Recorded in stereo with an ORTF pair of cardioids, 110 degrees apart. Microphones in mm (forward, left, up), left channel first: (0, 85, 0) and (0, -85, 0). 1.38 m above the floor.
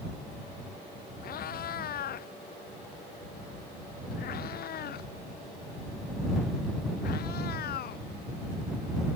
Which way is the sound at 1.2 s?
60° left.